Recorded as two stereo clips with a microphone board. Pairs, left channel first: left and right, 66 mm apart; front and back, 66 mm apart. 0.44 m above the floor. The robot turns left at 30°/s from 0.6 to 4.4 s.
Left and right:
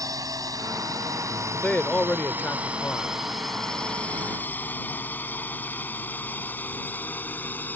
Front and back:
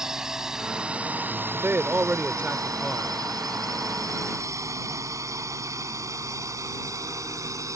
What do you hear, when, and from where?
0.0 s a drone: 100° right; by 7.8 s 150° left
1.5 s a man speaking: 155° left; by 3.2 s 105° left